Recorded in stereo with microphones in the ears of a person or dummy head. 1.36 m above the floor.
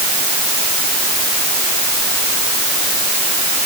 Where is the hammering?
No hammering in this recording.